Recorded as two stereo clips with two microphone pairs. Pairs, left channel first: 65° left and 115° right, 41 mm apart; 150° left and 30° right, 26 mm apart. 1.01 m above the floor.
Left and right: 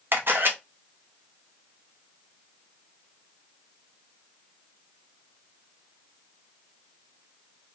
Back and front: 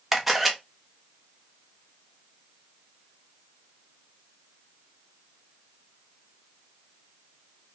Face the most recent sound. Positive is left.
turn(degrees=-115)